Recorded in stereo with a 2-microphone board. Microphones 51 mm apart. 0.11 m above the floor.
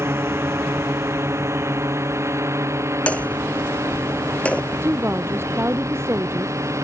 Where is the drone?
55° right (ahead or behind); by 6.9 s 75° right (ahead or behind).